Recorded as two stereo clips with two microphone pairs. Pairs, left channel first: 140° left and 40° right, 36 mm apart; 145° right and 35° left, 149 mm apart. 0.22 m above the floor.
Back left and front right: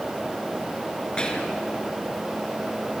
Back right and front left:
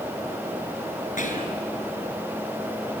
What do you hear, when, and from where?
1.2 s whispering: 160° right, 3.5 m